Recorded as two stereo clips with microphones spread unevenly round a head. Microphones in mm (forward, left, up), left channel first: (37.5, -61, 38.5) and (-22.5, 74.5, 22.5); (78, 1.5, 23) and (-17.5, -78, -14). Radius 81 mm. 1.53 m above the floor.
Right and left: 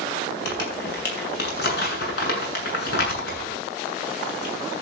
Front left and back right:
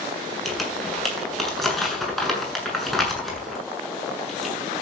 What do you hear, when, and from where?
0.5 s crumpling: 50° right, 7.5 m